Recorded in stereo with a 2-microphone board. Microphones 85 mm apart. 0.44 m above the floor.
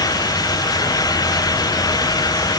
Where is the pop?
I don't hear a pop.